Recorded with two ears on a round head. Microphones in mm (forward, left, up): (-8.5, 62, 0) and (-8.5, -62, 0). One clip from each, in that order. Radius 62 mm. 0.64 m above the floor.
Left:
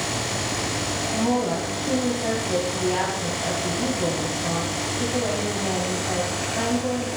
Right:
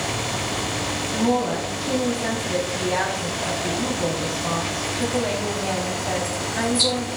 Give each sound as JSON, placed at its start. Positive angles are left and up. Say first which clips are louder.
{"t": 1.1, "sound": "a woman speaking", "louder": "right 2 dB", "side_deg": -80, "distance_m": 3.5}